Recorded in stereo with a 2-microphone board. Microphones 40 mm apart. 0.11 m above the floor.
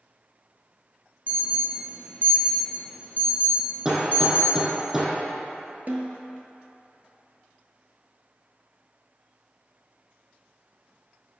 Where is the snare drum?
45° right (ahead or behind), 1.0 m.